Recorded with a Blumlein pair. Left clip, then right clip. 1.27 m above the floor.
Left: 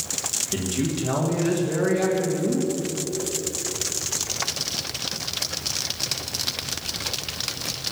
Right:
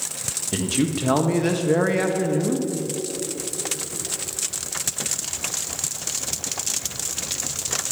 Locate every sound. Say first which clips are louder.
0.5 s a man speaking: right 2 dB; 70° right, 1.6 m